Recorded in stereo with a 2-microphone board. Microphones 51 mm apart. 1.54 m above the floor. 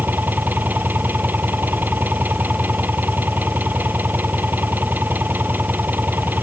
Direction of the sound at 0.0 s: 40° right (ahead or behind).